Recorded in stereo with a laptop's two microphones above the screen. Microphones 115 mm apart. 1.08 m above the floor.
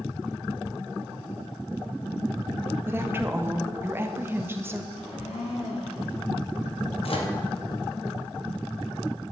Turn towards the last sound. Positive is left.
turn(degrees=60)  # may be behind; listen again after turning